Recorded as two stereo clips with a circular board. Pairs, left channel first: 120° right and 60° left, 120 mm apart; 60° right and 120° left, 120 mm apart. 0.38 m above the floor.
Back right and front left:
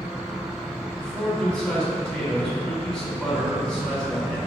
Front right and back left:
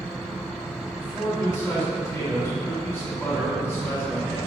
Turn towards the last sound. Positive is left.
turn(degrees=-55)